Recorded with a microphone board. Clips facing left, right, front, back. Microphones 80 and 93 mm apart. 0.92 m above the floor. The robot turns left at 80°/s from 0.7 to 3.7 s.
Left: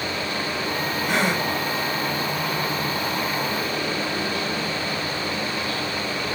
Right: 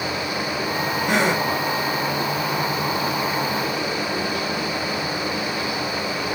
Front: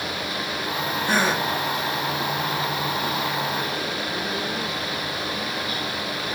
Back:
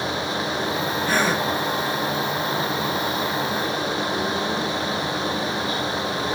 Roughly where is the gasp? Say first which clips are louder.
Right 3 dB, even; right.